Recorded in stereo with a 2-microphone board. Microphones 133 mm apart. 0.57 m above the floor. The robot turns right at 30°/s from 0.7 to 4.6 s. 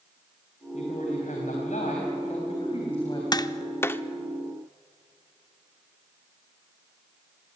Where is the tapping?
35° left (ahead or behind), 0.5 m; by 4.0 s 15° left (ahead or behind), 0.5 m.